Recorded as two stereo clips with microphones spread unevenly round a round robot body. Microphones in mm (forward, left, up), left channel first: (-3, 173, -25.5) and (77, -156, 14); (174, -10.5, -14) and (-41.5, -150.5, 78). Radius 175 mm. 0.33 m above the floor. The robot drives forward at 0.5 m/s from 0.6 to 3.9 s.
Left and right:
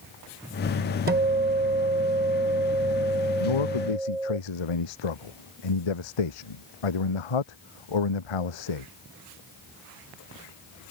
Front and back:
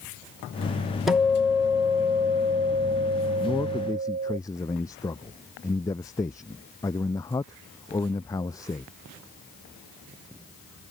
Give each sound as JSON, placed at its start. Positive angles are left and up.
{"t": 1.1, "sound": "a guitar", "azimuth_deg": -25}
{"t": 3.4, "sound": "a man speaking", "azimuth_deg": 115}